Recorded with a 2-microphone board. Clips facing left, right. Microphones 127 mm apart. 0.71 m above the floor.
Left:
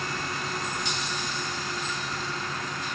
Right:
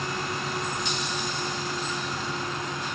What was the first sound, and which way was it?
Only background noise.